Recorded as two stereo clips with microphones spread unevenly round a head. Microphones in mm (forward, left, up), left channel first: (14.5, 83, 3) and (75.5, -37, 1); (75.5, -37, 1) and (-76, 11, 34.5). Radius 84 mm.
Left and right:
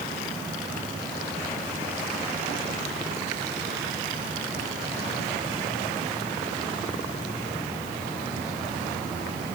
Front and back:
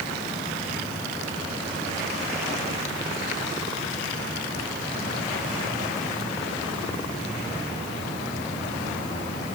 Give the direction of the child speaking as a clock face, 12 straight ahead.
No child speaking in this recording.